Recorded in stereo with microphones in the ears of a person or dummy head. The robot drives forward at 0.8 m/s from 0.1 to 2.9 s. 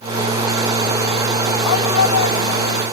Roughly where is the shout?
Left.